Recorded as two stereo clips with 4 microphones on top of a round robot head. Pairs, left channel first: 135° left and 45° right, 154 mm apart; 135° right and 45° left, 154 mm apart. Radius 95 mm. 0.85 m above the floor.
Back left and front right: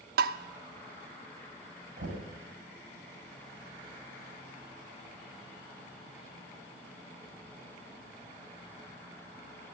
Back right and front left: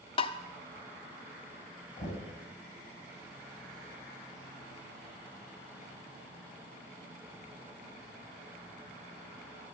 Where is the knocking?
90° right, 5.5 m.